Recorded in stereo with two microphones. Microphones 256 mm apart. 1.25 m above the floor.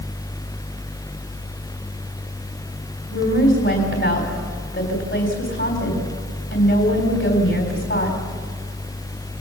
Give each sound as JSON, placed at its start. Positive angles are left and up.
{"t": 3.1, "sound": "a woman speaking", "side_deg": 50, "distance_m": 3.5}